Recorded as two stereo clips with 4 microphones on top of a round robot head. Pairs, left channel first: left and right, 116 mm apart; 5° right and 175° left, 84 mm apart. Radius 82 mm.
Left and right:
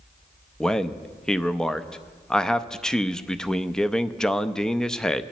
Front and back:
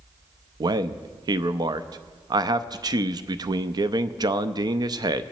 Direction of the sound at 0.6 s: 175° left.